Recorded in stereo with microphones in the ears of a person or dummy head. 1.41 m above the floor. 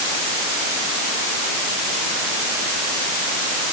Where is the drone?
I don't hear a drone.